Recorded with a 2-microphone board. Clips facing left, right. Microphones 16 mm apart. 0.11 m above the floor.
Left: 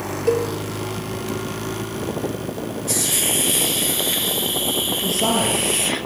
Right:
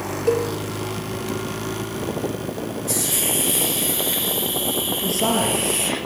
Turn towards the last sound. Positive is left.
turn(degrees=0)  # may be behind; listen again after turning